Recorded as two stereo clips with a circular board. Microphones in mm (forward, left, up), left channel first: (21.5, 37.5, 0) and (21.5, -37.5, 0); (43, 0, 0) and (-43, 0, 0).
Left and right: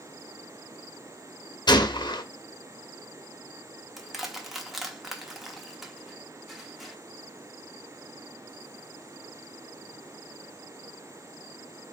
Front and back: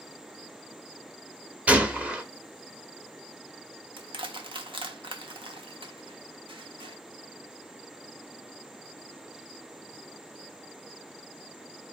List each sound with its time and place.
1.7 s a gunshot: 105° left, 0.6 m
4.0 s crushing: 175° right, 0.7 m